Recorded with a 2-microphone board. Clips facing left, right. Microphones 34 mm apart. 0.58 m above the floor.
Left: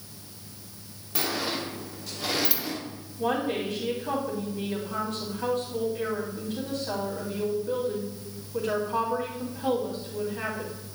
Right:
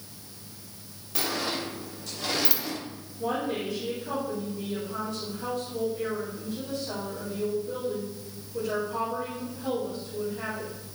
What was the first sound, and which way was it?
A sliding door, 10° left (ahead or behind).